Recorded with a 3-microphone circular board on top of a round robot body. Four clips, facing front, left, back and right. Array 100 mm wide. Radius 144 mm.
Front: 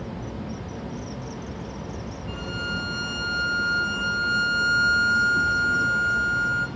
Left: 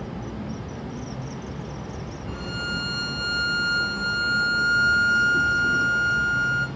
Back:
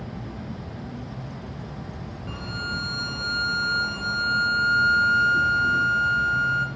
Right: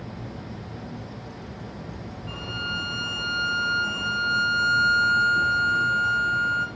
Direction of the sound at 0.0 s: 110° left.